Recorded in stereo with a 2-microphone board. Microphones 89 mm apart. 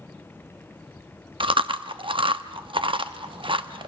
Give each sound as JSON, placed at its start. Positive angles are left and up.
{"t": 1.4, "sound": "chewing", "side_deg": -80, "distance_m": 0.8}